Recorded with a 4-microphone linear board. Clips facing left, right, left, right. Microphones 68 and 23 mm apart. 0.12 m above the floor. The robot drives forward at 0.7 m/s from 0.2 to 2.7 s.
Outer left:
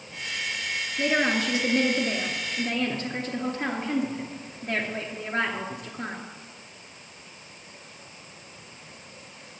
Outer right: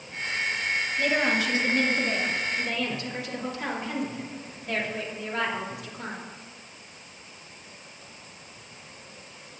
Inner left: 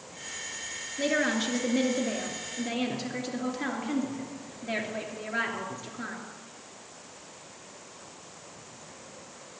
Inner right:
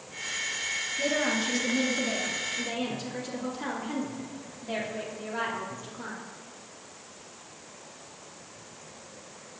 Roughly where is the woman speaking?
Left.